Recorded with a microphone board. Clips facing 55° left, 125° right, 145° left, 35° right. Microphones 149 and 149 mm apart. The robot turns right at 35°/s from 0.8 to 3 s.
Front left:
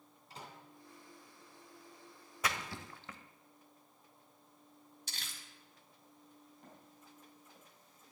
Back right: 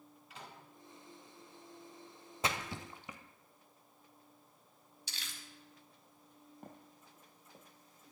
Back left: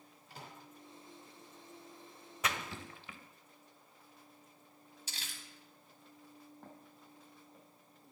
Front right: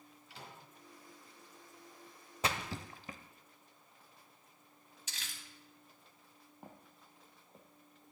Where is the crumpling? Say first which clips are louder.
Back right 1 dB, even; 90° left, 1.4 m.